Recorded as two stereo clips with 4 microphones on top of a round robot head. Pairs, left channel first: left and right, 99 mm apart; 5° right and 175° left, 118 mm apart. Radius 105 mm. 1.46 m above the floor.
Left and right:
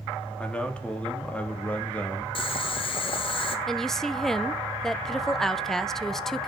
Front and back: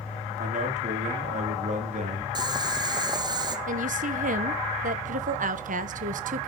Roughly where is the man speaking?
Behind.